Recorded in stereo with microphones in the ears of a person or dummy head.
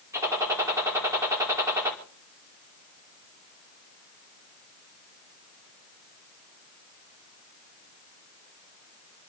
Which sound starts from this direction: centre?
A gunshot, at 0.1 s.